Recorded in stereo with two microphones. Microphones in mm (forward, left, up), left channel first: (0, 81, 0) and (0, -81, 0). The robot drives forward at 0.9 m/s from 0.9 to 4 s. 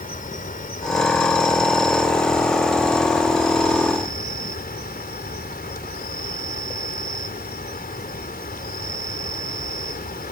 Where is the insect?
60° left (ahead or behind); by 10.3 s 65° left (ahead or behind).